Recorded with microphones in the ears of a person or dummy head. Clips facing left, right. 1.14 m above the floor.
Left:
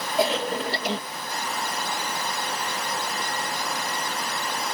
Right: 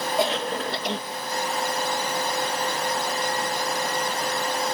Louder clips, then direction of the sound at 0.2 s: Left 3 dB; 10° left (ahead or behind).